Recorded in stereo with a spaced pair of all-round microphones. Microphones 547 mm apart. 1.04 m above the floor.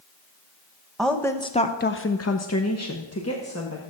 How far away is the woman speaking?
About 1.0 m.